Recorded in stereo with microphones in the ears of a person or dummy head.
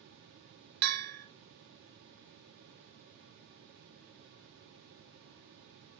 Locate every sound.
0.8 s a bell: 55° right (ahead or behind), 0.8 m